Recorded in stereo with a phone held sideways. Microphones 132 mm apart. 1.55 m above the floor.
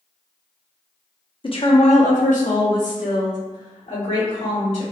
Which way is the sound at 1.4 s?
40° left (ahead or behind).